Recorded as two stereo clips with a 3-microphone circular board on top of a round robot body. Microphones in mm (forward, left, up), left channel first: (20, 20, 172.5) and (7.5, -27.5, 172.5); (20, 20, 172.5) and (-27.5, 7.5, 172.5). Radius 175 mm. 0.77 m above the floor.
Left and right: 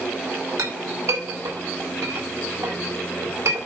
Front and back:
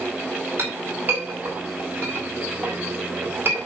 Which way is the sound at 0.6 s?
120° right.